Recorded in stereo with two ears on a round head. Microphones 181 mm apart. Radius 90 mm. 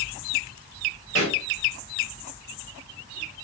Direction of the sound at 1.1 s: 80° left.